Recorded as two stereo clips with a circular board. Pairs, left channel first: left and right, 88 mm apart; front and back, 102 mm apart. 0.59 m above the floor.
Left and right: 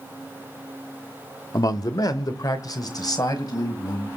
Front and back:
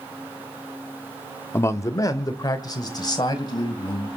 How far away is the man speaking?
About 1.0 m.